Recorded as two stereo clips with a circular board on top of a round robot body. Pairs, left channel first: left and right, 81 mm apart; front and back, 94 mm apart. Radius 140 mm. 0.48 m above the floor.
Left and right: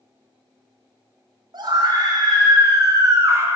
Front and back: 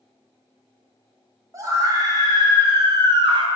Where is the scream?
125° right, 3 m; by 3.5 s 150° right, 2 m.